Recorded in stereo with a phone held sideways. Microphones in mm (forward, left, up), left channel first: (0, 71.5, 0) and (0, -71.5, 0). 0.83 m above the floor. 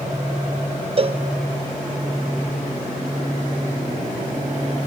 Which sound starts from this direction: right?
A cowbell, at 1.0 s.